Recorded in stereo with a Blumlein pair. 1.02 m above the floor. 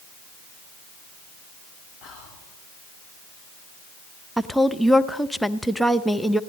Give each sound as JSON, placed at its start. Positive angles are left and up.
{"t": 2.0, "sound": "whispering", "azimuth_deg": 45, "distance_m": 3.0}
{"t": 4.4, "sound": "a woman speaking", "azimuth_deg": 0, "distance_m": 0.6}